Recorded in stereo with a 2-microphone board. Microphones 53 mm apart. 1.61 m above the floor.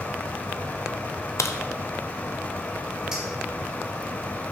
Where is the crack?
60° left (ahead or behind), 0.6 m.